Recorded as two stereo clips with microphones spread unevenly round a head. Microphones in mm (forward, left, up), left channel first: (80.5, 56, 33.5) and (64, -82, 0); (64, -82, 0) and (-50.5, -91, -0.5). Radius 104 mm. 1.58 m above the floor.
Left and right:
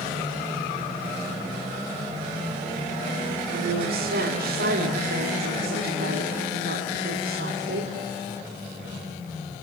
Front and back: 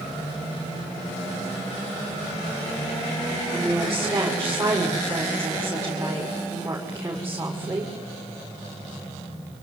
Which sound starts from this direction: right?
A woman speaking, at 3.5 s.